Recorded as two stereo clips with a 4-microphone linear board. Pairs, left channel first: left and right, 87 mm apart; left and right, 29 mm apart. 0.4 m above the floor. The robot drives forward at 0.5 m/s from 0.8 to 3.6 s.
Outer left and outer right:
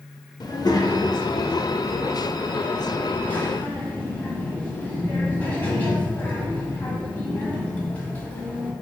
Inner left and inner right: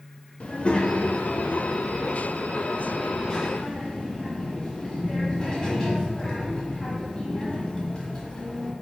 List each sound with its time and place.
0.4 s a child speaking: 50° left (ahead or behind), 0.6 m; by 8.7 s 20° left (ahead or behind), 1.4 m